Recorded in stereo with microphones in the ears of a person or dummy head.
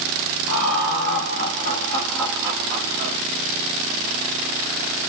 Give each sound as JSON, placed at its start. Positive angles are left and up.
{"t": 0.5, "sound": "laughter", "side_deg": 75, "distance_m": 2.0}